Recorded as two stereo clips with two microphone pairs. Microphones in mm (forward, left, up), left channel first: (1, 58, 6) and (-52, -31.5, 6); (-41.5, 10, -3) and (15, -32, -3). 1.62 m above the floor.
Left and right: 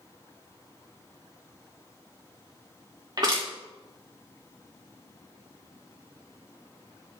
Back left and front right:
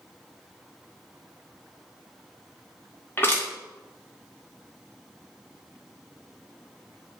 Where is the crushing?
165° right, 2.5 m.